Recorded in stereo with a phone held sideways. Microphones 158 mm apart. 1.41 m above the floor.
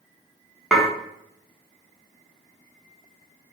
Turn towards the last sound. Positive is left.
turn(degrees=5)  # may be behind; listen again after turning